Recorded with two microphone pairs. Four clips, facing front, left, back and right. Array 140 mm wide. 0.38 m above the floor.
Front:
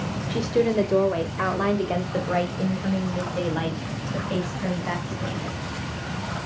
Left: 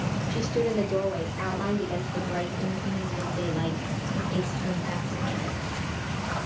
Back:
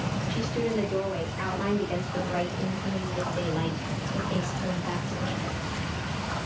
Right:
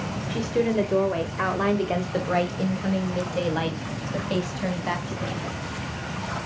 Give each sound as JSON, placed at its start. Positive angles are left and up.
{"t": 0.3, "sound": "a woman speaking", "azimuth_deg": -10, "distance_m": 1.6}